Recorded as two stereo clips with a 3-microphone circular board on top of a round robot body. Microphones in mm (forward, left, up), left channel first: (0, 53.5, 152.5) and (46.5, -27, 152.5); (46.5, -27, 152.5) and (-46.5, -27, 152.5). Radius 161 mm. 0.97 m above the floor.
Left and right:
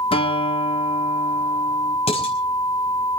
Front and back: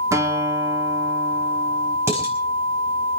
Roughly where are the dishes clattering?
Behind left.